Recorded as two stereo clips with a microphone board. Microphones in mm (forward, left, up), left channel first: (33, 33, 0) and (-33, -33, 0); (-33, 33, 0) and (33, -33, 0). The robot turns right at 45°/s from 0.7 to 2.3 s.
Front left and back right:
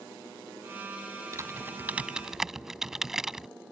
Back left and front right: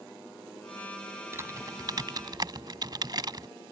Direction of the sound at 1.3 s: 95° right.